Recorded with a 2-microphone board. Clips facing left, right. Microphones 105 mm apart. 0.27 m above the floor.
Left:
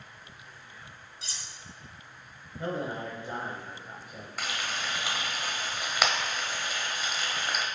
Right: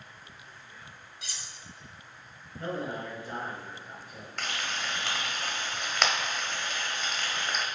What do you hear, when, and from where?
1.2 s cutlery clinking: 30° left (ahead or behind), 0.8 m
2.6 s a man speaking: 20° left (ahead or behind), 1.5 m
4.4 s frying: 5° left (ahead or behind), 1.1 m